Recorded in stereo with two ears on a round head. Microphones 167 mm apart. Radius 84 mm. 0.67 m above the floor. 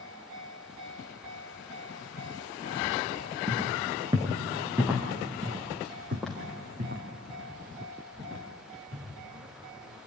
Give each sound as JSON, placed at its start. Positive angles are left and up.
{"t": 3.5, "sound": "footsteps", "side_deg": -30, "distance_m": 2.5}
{"t": 5.4, "sound": "footsteps", "side_deg": -25, "distance_m": 0.9}